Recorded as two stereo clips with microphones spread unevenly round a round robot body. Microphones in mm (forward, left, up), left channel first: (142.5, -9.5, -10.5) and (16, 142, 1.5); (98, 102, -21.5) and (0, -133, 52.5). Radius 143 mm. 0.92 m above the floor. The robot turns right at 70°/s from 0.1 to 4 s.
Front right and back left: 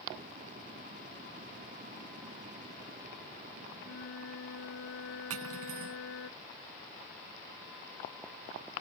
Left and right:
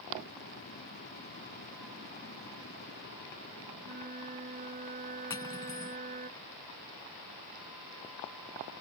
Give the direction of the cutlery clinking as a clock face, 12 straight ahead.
7 o'clock.